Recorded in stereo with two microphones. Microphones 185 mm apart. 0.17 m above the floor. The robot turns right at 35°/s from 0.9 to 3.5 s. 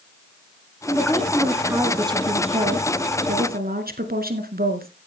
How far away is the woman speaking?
About 1.8 m.